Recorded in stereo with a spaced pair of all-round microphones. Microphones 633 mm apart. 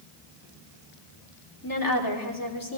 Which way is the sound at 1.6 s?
30° left (ahead or behind).